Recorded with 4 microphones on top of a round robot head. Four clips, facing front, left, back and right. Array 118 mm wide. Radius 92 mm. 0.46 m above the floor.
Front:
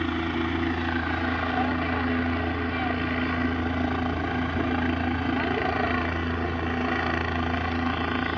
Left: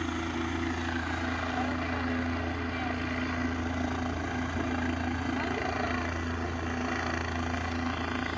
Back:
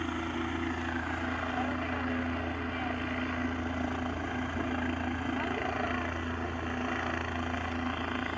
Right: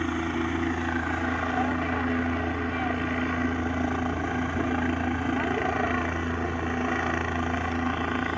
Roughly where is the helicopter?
Ahead right.